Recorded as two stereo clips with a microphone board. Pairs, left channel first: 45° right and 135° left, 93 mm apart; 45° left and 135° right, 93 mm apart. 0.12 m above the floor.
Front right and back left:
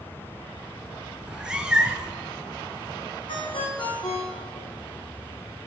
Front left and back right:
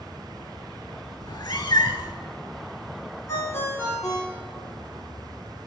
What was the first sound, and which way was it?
A cat meowing, 55° left.